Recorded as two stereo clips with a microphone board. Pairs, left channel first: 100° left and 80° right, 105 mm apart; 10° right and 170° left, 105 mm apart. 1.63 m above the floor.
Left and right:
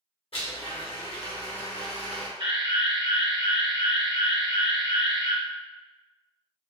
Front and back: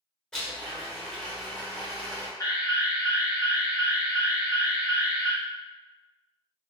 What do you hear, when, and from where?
0.3 s a blender: 75° left, 0.9 m
2.4 s an alarm: 55° right, 1.1 m